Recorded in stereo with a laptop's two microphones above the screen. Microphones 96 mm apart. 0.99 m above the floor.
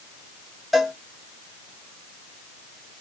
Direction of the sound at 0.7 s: Centre (ahead or behind).